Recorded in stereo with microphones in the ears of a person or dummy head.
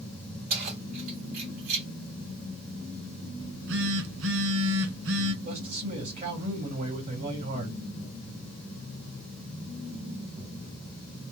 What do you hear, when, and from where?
0.5 s keys jangling: 40° right (ahead or behind), 1.8 m
3.4 s a phone buzzing: 75° right (ahead or behind), 1.3 m
5.4 s a man speaking: 40° right (ahead or behind), 1.6 m